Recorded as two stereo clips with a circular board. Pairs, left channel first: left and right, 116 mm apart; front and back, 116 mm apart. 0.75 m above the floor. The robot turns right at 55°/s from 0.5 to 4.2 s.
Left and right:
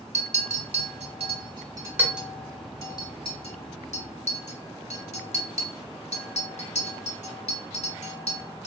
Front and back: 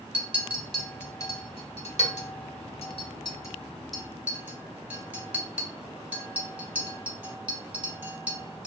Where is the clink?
100° right, 0.8 m; by 8.7 s 105° left, 0.8 m.